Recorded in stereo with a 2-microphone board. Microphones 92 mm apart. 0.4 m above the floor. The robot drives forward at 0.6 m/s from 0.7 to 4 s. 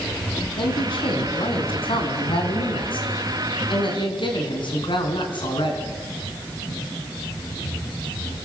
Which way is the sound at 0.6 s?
75° left (ahead or behind).